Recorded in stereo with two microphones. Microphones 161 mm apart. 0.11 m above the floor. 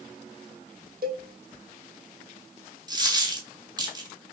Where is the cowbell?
70° right (ahead or behind), 0.7 m.